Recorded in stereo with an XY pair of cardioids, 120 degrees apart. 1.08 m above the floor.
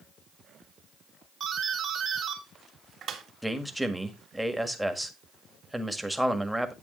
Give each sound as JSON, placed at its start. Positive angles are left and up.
{"t": 1.4, "sound": "a doorbell", "azimuth_deg": -55, "distance_m": 2.5}
{"t": 3.4, "sound": "a man speaking", "azimuth_deg": -5, "distance_m": 1.5}